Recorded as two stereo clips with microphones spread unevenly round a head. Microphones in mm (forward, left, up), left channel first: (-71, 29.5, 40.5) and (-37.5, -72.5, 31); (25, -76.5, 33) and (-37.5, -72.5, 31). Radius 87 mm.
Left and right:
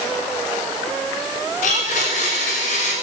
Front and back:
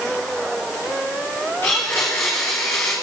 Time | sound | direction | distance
1.6 | a blender | 70° left | 6.5 m